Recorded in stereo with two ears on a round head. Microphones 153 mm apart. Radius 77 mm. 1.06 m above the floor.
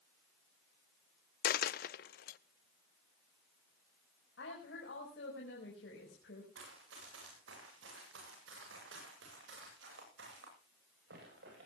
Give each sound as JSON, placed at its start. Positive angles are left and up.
{"t": 1.4, "sound": "a dropped coin", "side_deg": 55, "distance_m": 0.6}
{"t": 4.4, "sound": "a woman speaking", "side_deg": 70, "distance_m": 5.0}
{"t": 6.5, "sound": "running footsteps", "side_deg": -80, "distance_m": 8.5}